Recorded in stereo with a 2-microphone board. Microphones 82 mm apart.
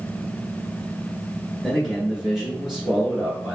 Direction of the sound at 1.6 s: 5° right (ahead or behind).